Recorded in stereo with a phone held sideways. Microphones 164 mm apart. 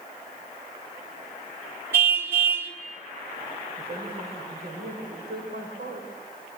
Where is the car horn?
15° right (ahead or behind), 4 m.